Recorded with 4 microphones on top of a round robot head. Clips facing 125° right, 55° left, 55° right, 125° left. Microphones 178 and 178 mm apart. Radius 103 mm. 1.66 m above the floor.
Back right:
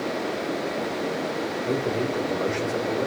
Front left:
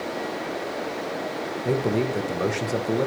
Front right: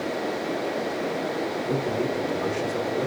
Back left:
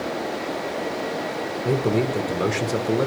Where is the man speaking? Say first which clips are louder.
Front left 4 dB, back left 7 dB; 105° left, 1.3 m.